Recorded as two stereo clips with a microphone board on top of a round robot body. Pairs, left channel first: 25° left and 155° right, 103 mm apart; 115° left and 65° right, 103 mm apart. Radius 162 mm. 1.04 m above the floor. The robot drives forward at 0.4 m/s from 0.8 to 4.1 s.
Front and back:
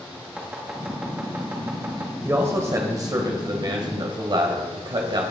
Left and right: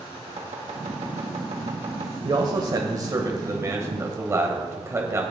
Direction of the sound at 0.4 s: 75° right.